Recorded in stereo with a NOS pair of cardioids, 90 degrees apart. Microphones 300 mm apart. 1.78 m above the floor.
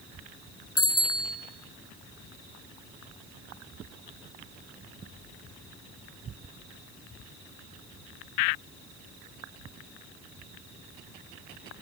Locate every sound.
0.8 s a bicycle bell: 50° left, 3.5 m